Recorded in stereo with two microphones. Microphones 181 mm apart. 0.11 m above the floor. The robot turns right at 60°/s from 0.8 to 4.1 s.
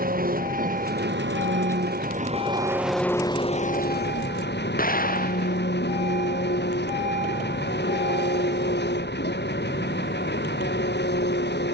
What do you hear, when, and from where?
0.0 s an engine running: 130° right; by 11.8 s 70° left
4.8 s an explosion: 50° left (ahead or behind)